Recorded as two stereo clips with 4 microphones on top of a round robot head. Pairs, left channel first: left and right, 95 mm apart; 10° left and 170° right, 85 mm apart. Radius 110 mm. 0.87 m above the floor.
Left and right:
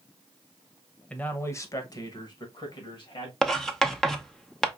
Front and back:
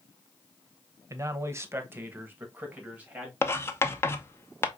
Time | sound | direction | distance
1.1 | a man speaking | 160° left | 0.8 m
3.4 | writing | 10° left | 0.9 m